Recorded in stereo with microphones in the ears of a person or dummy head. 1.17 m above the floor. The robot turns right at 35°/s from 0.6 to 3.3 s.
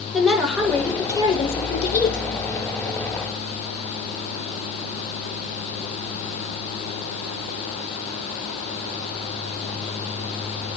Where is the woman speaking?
Straight ahead, 3.5 m; by 2.2 s 55° left, 3.5 m.